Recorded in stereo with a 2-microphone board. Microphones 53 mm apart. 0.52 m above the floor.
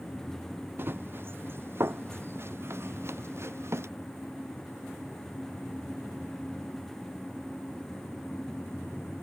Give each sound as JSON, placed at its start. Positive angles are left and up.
{"t": 0.8, "sound": "running footsteps", "side_deg": -45}